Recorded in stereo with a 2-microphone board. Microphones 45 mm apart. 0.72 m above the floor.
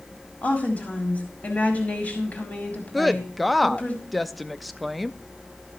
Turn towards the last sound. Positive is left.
turn(degrees=0)  # may be behind; listen again after turning